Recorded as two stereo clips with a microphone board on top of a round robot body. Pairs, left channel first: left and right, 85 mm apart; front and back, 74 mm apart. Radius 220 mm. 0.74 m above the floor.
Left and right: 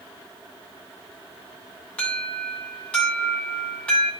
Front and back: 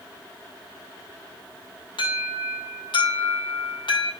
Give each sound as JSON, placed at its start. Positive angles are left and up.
{"t": 2.0, "sound": "an alarm", "azimuth_deg": 10, "distance_m": 7.5}